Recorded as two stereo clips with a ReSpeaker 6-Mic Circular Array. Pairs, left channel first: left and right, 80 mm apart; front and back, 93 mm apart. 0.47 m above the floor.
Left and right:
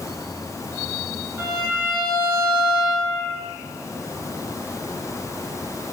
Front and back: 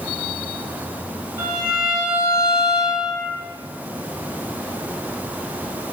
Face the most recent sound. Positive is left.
turn(degrees=-150)